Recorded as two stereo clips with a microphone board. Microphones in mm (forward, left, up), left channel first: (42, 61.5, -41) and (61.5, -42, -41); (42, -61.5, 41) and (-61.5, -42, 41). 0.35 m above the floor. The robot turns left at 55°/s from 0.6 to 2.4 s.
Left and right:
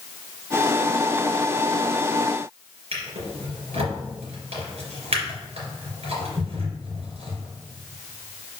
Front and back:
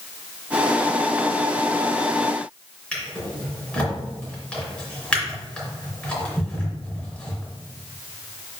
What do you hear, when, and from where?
2.9 s a drawer: 90° right, 3 m